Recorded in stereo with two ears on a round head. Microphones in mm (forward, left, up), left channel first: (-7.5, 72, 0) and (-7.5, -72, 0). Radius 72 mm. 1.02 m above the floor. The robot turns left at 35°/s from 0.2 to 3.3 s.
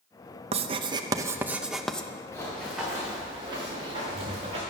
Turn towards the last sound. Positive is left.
turn(degrees=-35)  # may be behind; listen again after turning